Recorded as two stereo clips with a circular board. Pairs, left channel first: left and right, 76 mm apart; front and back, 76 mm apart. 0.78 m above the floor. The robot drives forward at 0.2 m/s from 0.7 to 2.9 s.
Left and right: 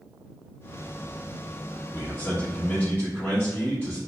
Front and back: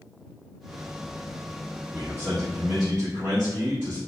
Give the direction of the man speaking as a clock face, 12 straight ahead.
7 o'clock.